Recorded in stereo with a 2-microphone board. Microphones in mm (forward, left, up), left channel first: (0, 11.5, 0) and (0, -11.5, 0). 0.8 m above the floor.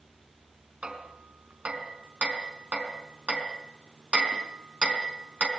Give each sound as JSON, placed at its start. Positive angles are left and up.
{"t": 0.8, "sound": "hammering", "side_deg": -65, "distance_m": 4.0}